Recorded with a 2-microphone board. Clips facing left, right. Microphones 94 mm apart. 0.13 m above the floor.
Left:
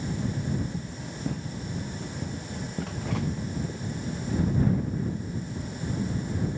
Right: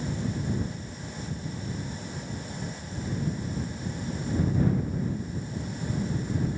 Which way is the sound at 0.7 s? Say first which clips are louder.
Left 2 dB; 70° left (ahead or behind).